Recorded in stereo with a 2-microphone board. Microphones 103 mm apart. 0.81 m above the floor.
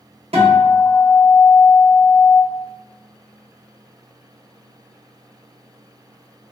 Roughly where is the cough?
I don't hear a cough.